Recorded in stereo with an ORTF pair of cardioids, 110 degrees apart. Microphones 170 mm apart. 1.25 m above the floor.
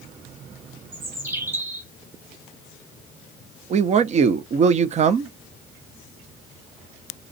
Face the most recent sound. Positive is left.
turn(degrees=-45)